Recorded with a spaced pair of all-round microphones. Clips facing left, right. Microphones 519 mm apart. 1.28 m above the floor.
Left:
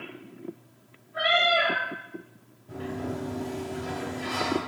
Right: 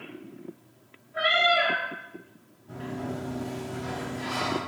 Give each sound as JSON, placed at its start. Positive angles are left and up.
{"t": 1.1, "sound": "a cat meowing", "side_deg": -50, "distance_m": 1.8}
{"t": 2.7, "sound": "a sliding door", "side_deg": -60, "distance_m": 1.4}